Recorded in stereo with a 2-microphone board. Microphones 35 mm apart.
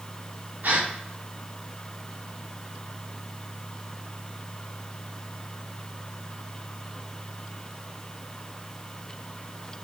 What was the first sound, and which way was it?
A gasp, 70° right (ahead or behind).